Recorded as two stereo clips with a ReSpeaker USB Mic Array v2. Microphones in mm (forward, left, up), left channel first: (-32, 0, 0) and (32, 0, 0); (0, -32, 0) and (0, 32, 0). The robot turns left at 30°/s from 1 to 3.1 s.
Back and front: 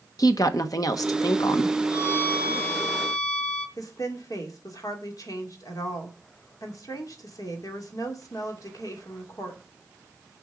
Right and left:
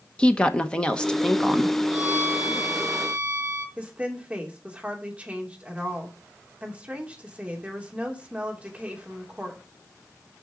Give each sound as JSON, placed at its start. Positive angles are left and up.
{"t": 0.2, "sound": "a woman speaking", "azimuth_deg": -160, "distance_m": 1.2}
{"t": 1.9, "sound": "a violin", "azimuth_deg": 155, "distance_m": 1.7}
{"t": 3.8, "sound": "a woman speaking", "azimuth_deg": 160, "distance_m": 2.5}